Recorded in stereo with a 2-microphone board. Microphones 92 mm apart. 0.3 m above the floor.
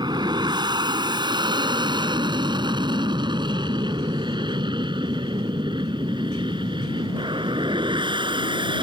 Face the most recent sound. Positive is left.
turn(degrees=-60)  # may be behind; listen again after turning